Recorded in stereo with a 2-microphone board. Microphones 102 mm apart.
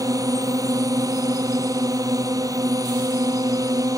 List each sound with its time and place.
0.0 s a drone: 35° right (ahead or behind)